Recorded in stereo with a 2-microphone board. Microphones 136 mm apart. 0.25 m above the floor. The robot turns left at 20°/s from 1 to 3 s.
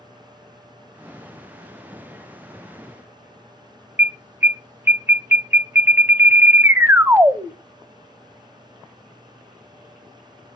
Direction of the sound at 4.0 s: 15° right (ahead or behind).